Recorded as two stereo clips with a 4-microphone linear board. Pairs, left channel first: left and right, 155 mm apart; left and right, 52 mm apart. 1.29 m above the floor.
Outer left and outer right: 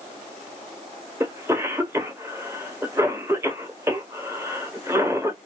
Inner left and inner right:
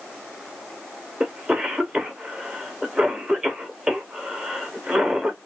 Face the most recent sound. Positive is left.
turn(degrees=-20)  # may be behind; listen again after turning